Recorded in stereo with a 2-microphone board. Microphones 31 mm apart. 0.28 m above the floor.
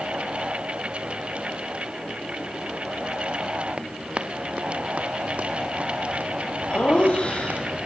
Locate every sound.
3.8 s running footsteps: 35° right (ahead or behind), 2 m; by 7.6 s 65° right (ahead or behind), 6 m
6.7 s laughter: 35° left (ahead or behind), 9.5 m